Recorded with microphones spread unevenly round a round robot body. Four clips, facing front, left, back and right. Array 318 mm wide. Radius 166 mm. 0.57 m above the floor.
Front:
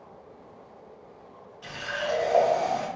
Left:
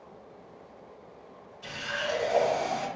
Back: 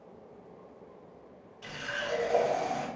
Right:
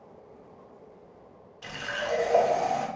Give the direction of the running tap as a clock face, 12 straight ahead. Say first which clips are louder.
Right 1 dB, front 5 dB; 4 o'clock.